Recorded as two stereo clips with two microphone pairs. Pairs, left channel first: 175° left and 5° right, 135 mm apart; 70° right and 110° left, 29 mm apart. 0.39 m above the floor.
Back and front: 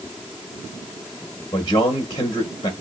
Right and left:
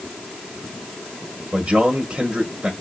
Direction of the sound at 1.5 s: 140° left.